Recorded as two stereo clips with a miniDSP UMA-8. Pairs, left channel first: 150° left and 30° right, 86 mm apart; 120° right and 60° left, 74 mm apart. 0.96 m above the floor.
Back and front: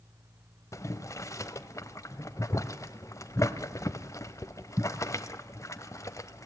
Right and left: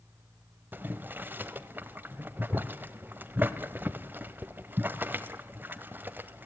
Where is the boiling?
115° left, 1.0 m.